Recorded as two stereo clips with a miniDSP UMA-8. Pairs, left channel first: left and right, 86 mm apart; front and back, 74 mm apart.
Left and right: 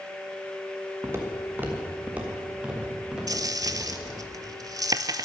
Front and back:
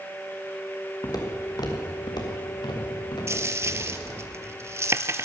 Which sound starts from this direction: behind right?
A dropped coin, at 3.3 s.